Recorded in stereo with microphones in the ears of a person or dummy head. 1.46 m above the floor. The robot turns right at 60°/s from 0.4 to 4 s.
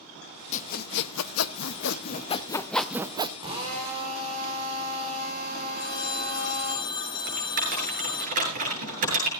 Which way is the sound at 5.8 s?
25° left (ahead or behind).